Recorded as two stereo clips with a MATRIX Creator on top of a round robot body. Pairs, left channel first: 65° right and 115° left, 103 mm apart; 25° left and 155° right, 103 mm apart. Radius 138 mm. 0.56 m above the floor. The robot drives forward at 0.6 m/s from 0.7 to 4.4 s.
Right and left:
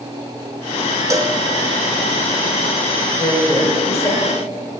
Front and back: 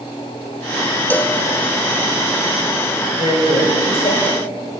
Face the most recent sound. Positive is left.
turn(degrees=-10)